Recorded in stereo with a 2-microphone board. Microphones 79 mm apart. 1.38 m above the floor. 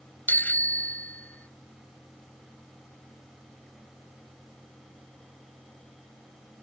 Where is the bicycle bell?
25° left (ahead or behind); by 1.5 s 20° left (ahead or behind).